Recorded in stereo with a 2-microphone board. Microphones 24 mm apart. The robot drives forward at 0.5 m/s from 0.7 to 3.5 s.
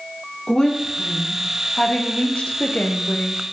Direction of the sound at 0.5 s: 25° left (ahead or behind).